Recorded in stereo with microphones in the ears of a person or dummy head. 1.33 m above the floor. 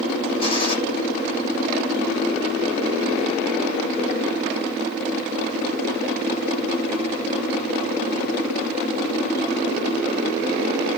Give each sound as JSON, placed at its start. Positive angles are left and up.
{"t": 0.4, "sound": "a gunshot", "side_deg": 35, "distance_m": 9.0}